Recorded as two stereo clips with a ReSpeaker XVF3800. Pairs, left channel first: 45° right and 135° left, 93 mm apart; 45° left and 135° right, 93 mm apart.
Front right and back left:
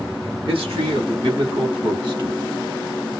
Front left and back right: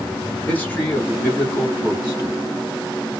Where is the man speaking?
115° left, 3 m; by 2.4 s 95° left, 3.5 m.